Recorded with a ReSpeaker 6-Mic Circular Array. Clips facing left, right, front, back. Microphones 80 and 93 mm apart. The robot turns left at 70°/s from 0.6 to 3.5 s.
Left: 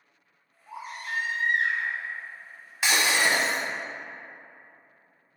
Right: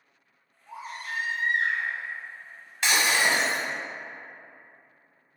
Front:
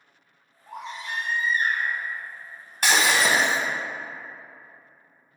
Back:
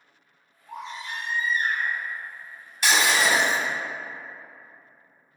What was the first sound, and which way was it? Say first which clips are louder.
A baby crying: left 1 dB, front 1 dB; 30° left.